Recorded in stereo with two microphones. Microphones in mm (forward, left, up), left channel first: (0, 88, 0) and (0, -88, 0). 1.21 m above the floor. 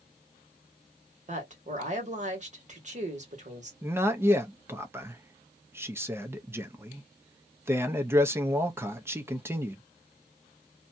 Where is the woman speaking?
45° right (ahead or behind), 1.4 m.